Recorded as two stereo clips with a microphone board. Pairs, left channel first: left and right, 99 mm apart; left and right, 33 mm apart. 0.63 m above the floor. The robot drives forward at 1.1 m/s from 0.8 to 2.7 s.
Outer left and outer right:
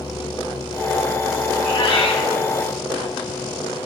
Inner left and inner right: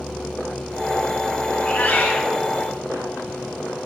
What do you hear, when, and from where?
1.5 s a cat meowing: 65° left (ahead or behind), 2.5 m; by 2.3 s 85° left, 2 m